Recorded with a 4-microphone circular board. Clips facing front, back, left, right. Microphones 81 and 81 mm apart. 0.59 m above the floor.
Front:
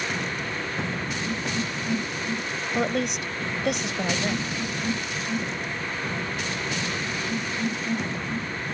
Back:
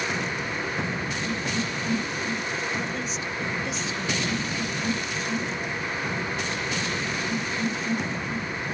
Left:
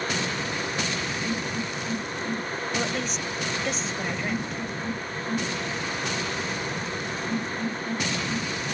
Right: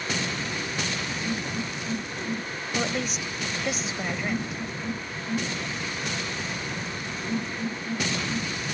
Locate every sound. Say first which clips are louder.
2.8 s a woman speaking: front 5 dB, right 3 dB; 5° right